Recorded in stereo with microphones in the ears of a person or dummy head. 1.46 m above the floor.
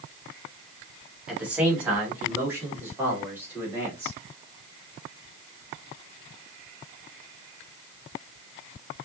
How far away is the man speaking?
About 2 m.